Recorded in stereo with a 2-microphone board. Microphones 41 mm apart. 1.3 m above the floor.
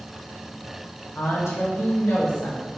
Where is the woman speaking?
85° left, 1.5 m.